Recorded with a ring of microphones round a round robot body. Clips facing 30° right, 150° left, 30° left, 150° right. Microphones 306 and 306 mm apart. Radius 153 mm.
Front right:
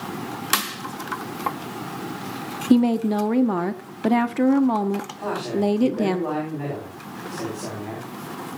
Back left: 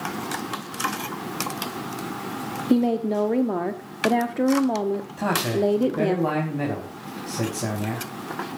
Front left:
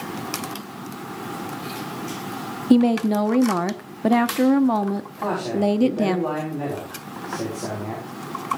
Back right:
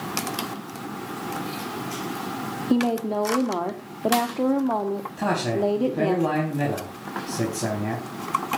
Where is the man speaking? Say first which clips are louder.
Back left 2 dB, even; 165° left, 4.5 m.